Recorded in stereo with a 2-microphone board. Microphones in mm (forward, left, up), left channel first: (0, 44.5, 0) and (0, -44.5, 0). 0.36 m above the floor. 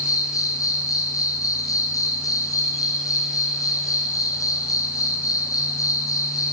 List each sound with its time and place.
0.0 s an insect: 40° left (ahead or behind), 1.6 m